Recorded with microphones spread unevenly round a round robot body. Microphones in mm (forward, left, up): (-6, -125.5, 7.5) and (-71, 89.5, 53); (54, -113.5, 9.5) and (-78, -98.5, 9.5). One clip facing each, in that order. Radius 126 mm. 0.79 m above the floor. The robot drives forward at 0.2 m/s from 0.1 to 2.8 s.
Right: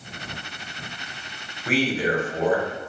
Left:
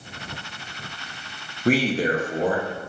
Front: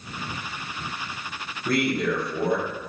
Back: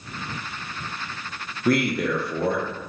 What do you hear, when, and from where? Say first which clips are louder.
1.6 s a man speaking: left 2 dB, back 2 dB; 155° left, 0.6 m; by 2.6 s 165° left, 0.7 m